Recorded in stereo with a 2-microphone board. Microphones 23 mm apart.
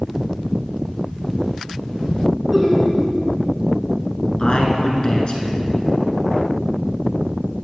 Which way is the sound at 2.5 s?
15° right (ahead or behind).